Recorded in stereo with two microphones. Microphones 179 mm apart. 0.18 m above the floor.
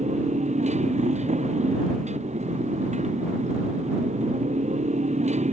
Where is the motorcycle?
40° right (ahead or behind).